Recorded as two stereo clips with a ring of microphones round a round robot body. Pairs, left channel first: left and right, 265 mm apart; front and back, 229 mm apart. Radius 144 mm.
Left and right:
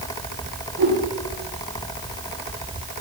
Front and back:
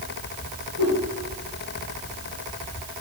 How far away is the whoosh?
About 5 m.